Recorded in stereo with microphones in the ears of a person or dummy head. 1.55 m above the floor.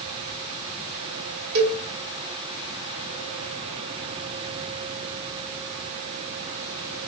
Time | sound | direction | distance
1.6 | a cowbell | 50° right (ahead or behind) | 0.6 m